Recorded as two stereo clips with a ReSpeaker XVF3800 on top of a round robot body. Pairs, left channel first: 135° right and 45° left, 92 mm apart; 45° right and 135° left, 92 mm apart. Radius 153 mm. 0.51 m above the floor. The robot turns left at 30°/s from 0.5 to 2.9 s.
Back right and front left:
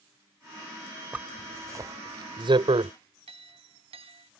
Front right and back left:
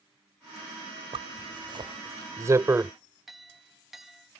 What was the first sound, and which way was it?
A zipper, 120° left.